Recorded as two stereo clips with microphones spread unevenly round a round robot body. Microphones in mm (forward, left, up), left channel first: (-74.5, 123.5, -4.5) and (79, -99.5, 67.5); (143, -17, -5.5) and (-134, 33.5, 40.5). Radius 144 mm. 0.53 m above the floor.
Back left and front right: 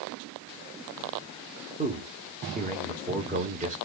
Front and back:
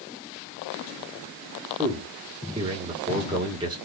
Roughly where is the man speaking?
Behind right.